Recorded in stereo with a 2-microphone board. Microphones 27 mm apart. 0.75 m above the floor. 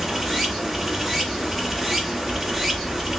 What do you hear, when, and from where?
0.0 s running water: 5° right (ahead or behind), 1.3 m